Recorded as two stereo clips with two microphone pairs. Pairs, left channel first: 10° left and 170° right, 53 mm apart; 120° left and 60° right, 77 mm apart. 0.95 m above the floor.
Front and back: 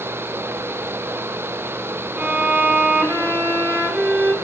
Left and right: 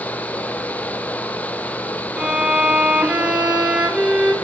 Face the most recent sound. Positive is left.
turn(degrees=-130)